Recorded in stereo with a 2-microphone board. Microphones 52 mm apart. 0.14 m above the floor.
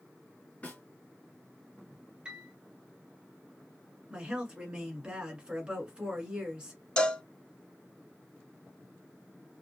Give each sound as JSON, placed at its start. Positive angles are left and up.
{"t": 0.6, "sound": "a snare drum", "side_deg": 30, "distance_m": 2.0}
{"t": 2.2, "sound": "a piano", "side_deg": -20, "distance_m": 1.1}
{"t": 4.1, "sound": "a woman speaking", "side_deg": -20, "distance_m": 1.4}
{"t": 7.0, "sound": "a cowbell", "side_deg": 15, "distance_m": 0.7}